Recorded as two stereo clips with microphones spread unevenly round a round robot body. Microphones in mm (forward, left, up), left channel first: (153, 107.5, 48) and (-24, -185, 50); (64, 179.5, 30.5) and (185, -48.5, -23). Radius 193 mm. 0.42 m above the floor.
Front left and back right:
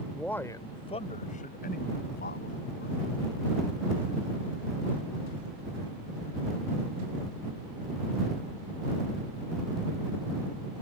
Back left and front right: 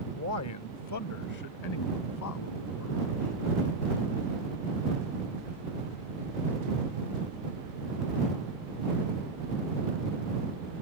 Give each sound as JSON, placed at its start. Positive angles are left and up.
{"t": 0.1, "sound": "a man speaking", "azimuth_deg": 150}